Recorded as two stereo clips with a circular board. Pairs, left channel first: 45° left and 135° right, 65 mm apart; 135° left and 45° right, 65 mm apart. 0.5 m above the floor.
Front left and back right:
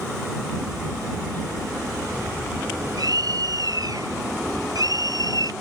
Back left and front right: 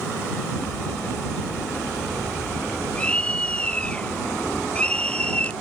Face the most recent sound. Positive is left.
turn(degrees=-150)